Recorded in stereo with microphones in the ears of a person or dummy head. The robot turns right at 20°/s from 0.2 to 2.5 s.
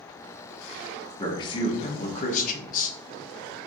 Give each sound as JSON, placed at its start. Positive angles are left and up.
{"t": 1.2, "sound": "a man speaking", "side_deg": 15, "distance_m": 0.8}